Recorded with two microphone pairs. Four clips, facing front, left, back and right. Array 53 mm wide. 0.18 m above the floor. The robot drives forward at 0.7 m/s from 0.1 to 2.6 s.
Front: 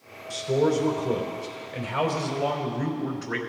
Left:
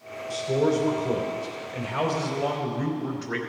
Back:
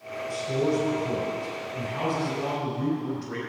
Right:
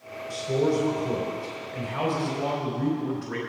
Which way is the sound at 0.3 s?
30° left.